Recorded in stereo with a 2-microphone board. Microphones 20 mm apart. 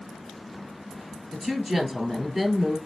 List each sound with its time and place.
1.3 s a woman speaking: 25° right (ahead or behind), 1.5 m